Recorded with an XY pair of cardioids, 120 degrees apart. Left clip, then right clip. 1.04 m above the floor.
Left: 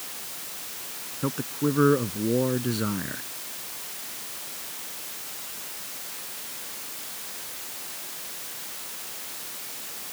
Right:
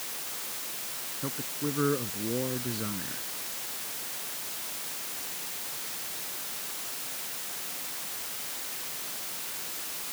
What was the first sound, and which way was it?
A man speaking, 40° left.